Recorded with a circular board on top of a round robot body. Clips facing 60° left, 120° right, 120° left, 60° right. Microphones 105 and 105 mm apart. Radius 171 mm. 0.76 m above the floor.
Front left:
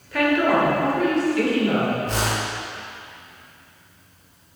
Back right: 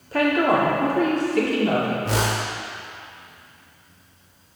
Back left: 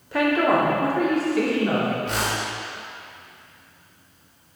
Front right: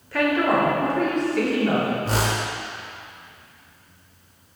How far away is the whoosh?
About 0.6 m.